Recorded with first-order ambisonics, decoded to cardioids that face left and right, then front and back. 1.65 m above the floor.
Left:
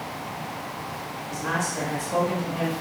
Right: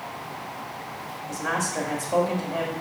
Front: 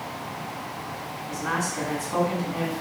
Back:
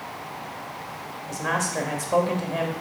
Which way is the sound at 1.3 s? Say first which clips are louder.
Right 1 dB, back 2 dB; 170° right.